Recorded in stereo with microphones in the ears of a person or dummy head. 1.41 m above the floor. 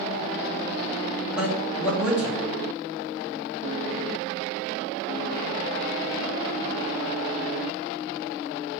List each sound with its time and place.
1.4 s a man speaking: 5° right (ahead or behind), 1.6 m